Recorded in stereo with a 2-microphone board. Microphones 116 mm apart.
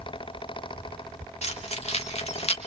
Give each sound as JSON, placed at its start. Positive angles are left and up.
{"t": 1.4, "sound": "keys jangling", "side_deg": 70, "distance_m": 3.0}